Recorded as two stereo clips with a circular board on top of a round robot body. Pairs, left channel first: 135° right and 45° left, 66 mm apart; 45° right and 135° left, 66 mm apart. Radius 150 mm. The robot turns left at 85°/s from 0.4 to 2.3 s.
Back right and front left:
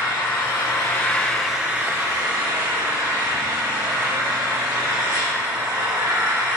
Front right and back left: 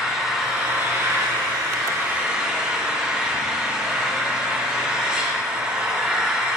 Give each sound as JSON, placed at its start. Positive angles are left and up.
{"t": 0.0, "sound": "an engine running", "azimuth_deg": -140, "distance_m": 2.5}